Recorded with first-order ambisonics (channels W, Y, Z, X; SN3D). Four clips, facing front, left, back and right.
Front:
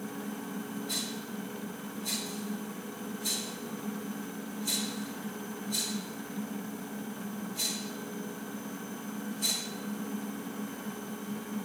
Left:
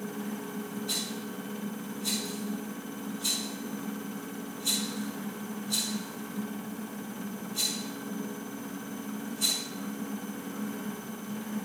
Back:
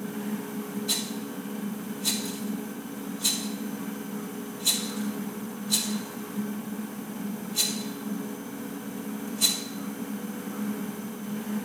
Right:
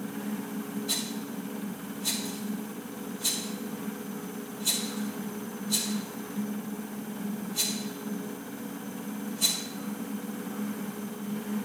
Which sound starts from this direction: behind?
A rattle, at 0.9 s.